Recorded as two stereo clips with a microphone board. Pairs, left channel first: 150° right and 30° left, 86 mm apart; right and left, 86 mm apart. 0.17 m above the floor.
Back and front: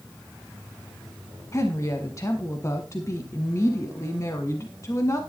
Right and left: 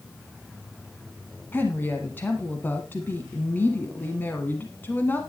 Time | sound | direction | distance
1.5 | a woman speaking | 140° right | 1.2 m